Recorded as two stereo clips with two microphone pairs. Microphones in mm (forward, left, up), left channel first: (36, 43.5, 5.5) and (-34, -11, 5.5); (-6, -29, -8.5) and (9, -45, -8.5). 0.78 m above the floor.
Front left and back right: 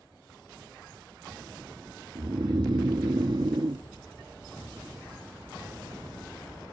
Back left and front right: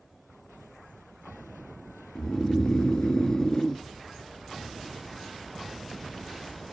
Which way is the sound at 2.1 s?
170° right.